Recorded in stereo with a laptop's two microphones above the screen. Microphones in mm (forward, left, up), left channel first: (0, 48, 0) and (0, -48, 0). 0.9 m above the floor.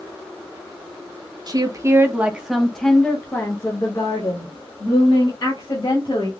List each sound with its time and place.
1.5 s a woman speaking: 45° right (ahead or behind), 0.8 m; by 6.3 s 50° left (ahead or behind), 2 m